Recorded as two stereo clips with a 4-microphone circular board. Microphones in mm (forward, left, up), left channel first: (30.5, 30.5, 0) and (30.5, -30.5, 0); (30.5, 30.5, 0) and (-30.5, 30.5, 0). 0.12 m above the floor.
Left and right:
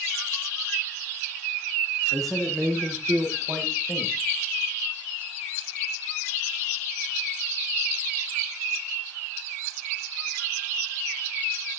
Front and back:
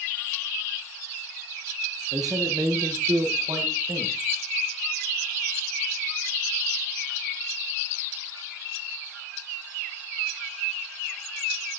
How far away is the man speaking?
About 7.5 m.